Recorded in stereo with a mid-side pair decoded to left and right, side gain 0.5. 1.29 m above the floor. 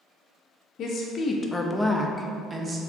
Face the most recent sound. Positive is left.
turn(degrees=-35)